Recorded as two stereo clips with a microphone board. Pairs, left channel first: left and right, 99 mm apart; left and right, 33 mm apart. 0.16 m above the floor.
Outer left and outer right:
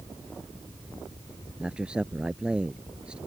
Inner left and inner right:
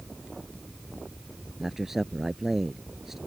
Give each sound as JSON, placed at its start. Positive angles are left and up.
{"t": 1.6, "sound": "a man speaking", "side_deg": -10}